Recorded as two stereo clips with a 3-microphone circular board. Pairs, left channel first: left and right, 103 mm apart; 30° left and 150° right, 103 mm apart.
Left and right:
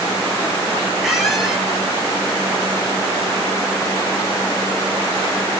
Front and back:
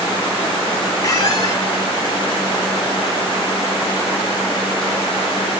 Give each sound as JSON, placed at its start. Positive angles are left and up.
{"t": 1.0, "sound": "a squeak", "azimuth_deg": -5, "distance_m": 0.7}